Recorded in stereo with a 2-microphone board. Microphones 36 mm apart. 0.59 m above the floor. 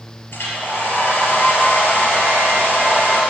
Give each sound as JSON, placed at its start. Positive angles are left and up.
{"t": 0.3, "sound": "a hair dryer", "side_deg": 70, "distance_m": 3.5}